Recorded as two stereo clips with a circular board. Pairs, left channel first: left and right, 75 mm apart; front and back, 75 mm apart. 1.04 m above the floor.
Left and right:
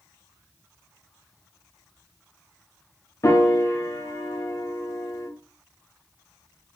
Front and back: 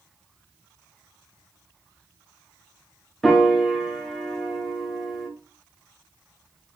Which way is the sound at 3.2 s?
85° left.